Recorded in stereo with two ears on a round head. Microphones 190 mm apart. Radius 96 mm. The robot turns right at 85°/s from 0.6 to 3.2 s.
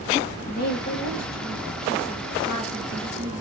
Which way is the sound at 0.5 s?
45° left (ahead or behind).